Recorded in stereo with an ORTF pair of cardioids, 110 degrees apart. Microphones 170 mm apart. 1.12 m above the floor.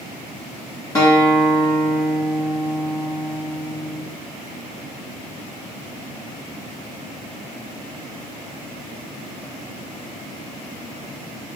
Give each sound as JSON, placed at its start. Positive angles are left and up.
{"t": 0.9, "sound": "a guitar", "azimuth_deg": 20, "distance_m": 1.7}